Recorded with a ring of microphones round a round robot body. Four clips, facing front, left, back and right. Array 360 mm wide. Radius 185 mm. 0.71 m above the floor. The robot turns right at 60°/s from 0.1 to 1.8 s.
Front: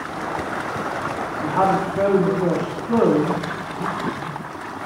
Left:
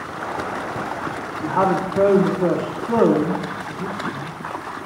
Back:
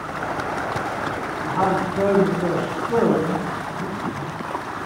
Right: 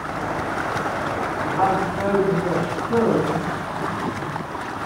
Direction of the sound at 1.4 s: 50° left.